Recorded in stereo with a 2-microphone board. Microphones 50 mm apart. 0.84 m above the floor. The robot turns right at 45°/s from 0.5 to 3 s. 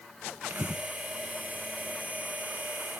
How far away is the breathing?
About 1.2 m.